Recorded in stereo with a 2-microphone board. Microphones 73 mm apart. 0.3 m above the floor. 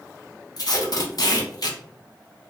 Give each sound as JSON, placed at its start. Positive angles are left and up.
{"t": 0.6, "sound": "tape being pulled", "side_deg": 60, "distance_m": 0.6}